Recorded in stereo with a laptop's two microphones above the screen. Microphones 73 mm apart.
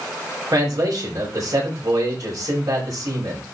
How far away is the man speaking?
About 5 m.